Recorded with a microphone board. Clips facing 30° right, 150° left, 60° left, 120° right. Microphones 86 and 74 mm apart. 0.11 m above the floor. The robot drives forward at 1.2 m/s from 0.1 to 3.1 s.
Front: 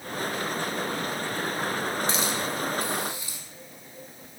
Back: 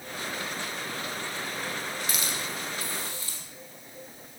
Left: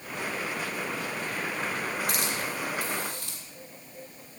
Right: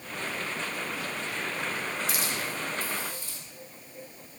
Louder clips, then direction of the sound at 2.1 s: Front 6 dB, left 1 dB; 30° left.